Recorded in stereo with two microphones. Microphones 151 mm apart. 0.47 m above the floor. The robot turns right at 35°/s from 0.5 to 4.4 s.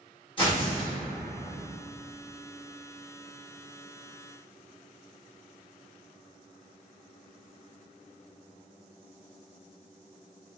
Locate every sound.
0.4 s tearing paper: 35° left (ahead or behind), 1.6 m